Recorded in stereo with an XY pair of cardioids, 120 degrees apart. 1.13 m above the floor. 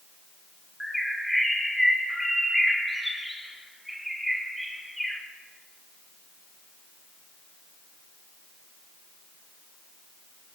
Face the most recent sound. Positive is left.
turn(degrees=0)